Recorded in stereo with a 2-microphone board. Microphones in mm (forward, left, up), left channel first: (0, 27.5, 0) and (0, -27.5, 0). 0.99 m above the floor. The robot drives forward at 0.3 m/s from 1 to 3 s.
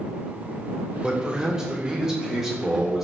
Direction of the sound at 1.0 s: 15° right (ahead or behind).